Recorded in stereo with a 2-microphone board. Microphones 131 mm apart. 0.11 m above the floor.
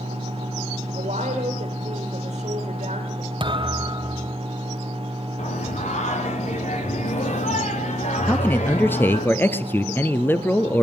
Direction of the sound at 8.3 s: 15° left (ahead or behind).